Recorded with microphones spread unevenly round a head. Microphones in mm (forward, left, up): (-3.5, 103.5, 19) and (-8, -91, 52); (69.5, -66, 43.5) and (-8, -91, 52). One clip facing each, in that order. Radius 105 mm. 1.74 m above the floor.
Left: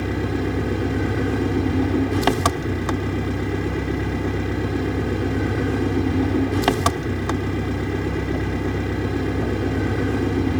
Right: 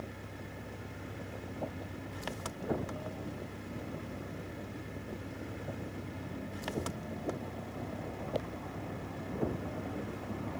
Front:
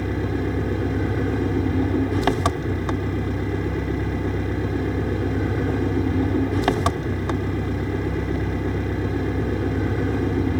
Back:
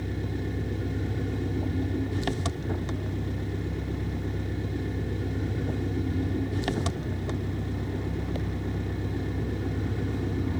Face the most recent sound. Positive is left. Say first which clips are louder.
# left 22 dB, front 9 dB
turn(degrees=80)